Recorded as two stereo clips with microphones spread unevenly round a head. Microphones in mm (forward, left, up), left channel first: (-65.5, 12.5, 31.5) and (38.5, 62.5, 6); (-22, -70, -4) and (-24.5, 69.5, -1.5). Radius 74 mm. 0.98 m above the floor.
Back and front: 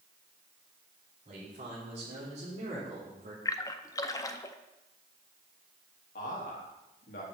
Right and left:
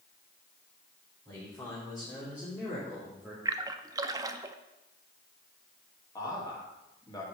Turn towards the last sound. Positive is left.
turn(degrees=-150)